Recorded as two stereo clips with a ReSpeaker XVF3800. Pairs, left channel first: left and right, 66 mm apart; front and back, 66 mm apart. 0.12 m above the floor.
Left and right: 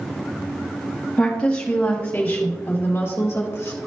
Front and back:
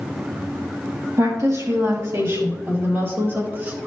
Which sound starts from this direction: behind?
A woman speaking, at 1.2 s.